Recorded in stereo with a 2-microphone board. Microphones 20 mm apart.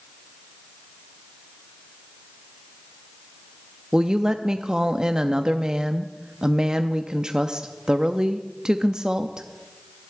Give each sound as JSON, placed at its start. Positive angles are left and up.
{"t": 3.9, "sound": "a woman speaking", "side_deg": -40, "distance_m": 0.5}